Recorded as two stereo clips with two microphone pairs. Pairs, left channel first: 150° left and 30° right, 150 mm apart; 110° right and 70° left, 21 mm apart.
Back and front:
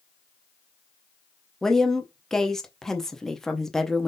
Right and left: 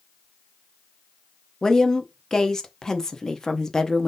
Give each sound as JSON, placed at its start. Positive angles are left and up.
{"t": 1.6, "sound": "a woman speaking", "azimuth_deg": -130, "distance_m": 0.6}